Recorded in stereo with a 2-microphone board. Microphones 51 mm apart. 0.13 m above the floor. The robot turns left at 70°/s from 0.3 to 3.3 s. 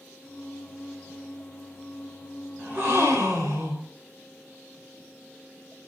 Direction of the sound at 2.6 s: 30° right.